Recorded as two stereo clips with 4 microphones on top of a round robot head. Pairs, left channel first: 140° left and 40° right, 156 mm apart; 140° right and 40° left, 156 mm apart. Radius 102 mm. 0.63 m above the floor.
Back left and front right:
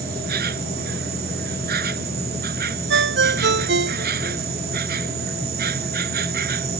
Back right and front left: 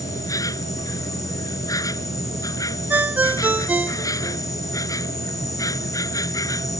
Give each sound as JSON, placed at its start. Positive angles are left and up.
{"t": 0.0, "sound": "an insect", "azimuth_deg": -70}
{"t": 2.9, "sound": "a ringtone", "azimuth_deg": -40}